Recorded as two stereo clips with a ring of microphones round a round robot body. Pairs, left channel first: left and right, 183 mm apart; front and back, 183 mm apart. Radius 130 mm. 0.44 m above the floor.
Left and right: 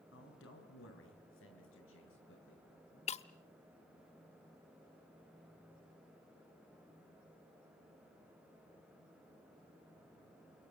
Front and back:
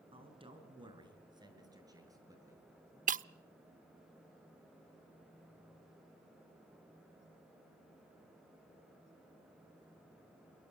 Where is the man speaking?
120° left, 6.5 m; by 3.0 s 105° left, 10 m.